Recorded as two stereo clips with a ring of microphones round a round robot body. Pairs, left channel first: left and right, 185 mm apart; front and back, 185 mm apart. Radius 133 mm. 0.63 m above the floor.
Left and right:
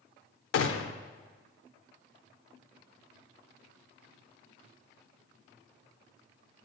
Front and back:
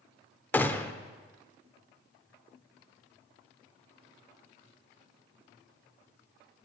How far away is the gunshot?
About 0.6 m.